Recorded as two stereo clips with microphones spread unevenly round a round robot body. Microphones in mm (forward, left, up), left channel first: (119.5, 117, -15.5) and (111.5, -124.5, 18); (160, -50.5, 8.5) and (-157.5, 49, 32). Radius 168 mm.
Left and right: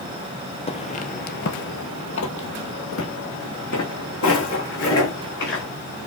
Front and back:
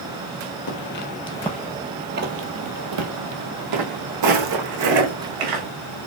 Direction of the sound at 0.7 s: 20° left.